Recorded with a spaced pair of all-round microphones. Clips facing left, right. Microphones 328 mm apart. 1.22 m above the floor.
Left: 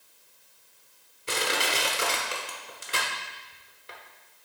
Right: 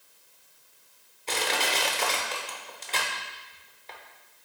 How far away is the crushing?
About 1.1 m.